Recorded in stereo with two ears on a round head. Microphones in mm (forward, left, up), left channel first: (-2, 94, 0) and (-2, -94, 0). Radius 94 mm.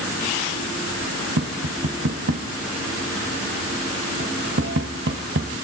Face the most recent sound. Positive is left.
turn(degrees=-55)  # may be behind; listen again after turning